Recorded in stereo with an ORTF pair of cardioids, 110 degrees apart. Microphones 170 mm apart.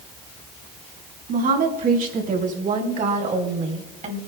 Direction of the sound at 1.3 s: 55° right.